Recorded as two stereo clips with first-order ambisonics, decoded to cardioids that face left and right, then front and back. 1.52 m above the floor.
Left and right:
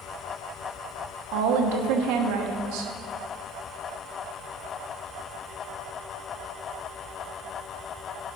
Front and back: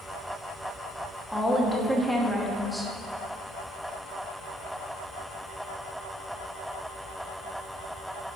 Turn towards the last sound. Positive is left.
turn(degrees=-90)